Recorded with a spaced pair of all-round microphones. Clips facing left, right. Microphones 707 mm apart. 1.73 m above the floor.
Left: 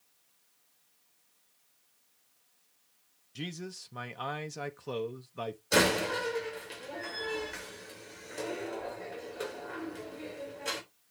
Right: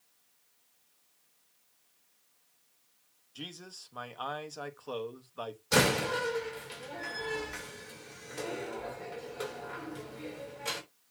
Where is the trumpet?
I don't hear a trumpet.